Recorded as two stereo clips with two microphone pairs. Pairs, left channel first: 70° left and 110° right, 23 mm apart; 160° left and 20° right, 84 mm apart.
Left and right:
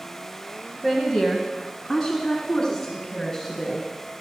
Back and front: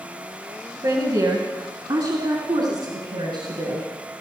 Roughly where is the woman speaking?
Ahead right.